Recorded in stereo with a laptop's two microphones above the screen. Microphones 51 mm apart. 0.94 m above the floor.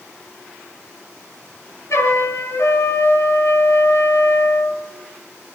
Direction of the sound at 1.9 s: 70° left (ahead or behind).